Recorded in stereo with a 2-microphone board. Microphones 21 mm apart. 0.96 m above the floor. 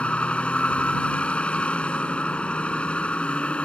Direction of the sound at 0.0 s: 65° left (ahead or behind).